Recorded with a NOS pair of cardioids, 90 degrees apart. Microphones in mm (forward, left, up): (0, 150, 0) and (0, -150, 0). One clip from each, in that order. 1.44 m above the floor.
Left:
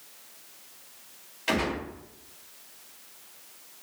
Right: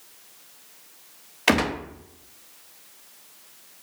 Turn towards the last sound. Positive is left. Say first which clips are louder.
# right 6 dB
turn(degrees=-60)